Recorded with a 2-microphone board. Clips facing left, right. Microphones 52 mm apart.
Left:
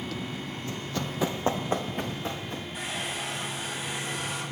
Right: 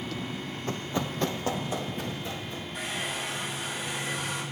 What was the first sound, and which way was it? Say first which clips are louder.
Running footsteps: right 3 dB; 45° right (ahead or behind).